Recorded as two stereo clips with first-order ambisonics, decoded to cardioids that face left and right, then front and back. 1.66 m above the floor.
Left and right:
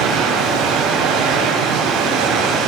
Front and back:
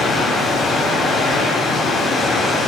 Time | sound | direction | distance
0.0 | running water | 70° right | 2.5 m